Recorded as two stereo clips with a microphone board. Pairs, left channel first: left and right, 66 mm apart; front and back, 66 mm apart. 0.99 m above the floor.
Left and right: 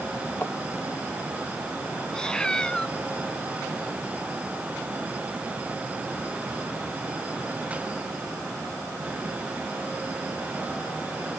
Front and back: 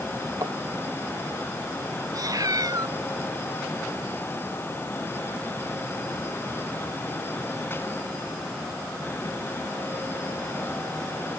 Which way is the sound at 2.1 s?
170° left.